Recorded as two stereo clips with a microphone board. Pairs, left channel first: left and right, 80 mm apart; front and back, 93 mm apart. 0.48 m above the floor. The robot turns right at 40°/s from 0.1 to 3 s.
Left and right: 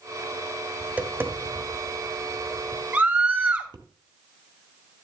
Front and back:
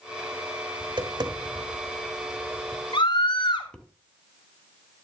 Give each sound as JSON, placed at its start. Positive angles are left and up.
{"t": 0.8, "sound": "tapping", "azimuth_deg": -165, "distance_m": 1.4}
{"t": 2.9, "sound": "a scream", "azimuth_deg": -20, "distance_m": 2.5}